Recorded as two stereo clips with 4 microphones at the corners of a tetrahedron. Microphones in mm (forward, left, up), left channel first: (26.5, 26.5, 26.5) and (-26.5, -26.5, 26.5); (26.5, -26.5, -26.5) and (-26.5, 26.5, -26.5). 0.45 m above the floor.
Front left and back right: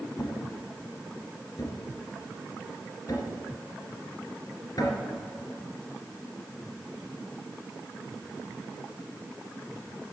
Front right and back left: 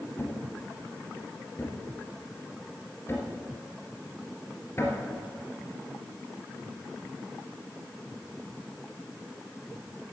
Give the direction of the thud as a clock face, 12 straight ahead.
12 o'clock.